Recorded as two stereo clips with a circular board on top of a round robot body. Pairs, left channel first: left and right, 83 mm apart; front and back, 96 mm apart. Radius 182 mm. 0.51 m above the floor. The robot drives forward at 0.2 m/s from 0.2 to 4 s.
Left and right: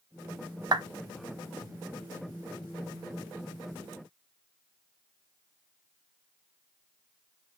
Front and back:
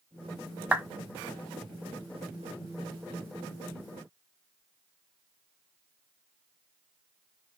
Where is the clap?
110° right, 0.8 m.